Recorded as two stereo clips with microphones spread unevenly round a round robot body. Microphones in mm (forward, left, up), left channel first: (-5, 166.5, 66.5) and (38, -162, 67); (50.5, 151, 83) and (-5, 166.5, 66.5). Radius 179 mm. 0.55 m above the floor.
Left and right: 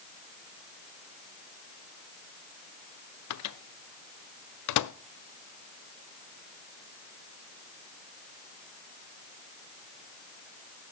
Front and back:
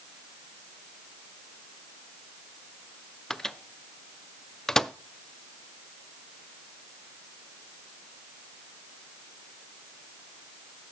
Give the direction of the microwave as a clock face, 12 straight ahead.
9 o'clock.